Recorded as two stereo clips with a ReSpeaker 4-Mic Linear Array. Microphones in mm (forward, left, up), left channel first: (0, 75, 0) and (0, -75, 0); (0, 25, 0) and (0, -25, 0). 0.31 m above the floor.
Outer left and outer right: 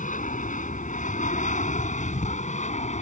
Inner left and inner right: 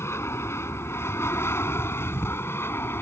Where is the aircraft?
60° left (ahead or behind); by 3.0 s 50° left (ahead or behind).